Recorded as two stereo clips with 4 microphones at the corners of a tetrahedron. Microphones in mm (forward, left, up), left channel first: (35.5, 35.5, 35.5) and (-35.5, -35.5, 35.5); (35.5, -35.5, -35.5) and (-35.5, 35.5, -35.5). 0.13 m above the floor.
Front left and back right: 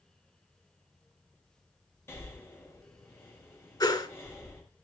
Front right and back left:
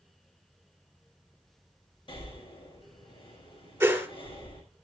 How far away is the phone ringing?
No phone ringing in this recording.